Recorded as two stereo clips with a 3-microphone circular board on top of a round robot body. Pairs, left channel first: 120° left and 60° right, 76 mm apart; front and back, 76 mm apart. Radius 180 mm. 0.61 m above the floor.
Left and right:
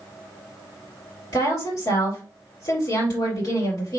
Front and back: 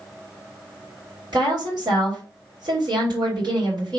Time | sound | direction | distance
1.3 | a woman speaking | 155° left | 3 m